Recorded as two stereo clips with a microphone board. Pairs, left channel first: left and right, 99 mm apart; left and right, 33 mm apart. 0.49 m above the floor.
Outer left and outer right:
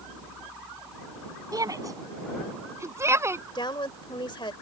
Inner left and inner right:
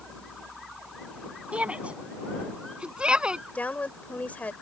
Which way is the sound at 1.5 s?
35° right (ahead or behind).